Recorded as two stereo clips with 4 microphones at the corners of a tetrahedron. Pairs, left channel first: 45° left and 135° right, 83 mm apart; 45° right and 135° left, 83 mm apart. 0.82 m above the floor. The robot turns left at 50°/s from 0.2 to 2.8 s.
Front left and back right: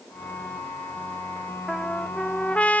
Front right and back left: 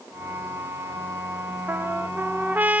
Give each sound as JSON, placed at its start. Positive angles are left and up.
{"t": 1.7, "sound": "a trumpet", "azimuth_deg": 145, "distance_m": 0.9}